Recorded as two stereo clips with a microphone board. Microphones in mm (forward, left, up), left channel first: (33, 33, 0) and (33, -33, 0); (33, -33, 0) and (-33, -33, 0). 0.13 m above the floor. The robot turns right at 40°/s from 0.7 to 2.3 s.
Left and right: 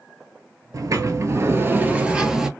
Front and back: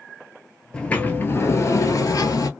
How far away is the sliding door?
About 0.7 m.